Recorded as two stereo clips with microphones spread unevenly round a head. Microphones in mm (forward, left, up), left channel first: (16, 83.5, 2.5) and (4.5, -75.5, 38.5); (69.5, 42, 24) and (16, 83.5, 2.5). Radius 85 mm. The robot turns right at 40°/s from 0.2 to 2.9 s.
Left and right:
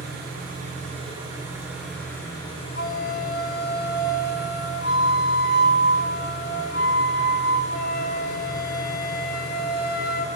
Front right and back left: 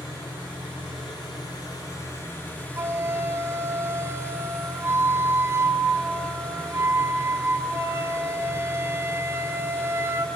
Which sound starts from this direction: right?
An engine running, at 0.0 s.